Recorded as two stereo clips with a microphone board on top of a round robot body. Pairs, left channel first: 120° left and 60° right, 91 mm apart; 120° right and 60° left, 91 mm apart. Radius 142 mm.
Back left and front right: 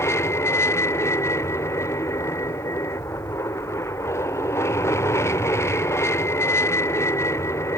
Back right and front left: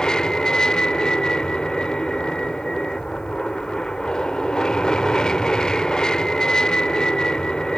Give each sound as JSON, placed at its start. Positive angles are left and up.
{"t": 0.0, "sound": "an aircraft", "azimuth_deg": 160}